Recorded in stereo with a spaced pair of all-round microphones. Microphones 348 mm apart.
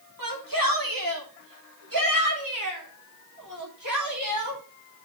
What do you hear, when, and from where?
0.2 s a shout: 75° right (ahead or behind), 3 m; by 4.6 s 55° right (ahead or behind), 5 m